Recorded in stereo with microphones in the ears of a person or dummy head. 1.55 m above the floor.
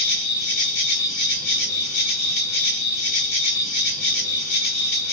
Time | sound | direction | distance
0.0 | an insect | 45° left (ahead or behind) | 1.2 m